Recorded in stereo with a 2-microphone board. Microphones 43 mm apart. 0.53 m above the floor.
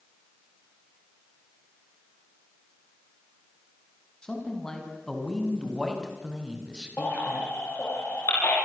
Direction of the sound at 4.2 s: 20° left (ahead or behind).